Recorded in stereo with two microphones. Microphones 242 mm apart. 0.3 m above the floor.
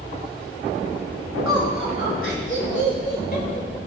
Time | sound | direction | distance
1.4 | laughter | 65° left (ahead or behind) | 3 m